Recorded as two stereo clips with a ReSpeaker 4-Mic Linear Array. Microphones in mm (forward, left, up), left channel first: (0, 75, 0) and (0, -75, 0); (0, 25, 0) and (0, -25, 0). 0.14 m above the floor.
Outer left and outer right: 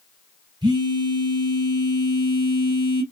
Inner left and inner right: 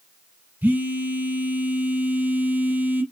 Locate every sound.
0.6 s a phone buzzing: 30° right (ahead or behind), 1.2 m